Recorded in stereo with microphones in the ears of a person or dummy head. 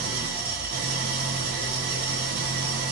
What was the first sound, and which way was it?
An engine running, 50° right (ahead or behind).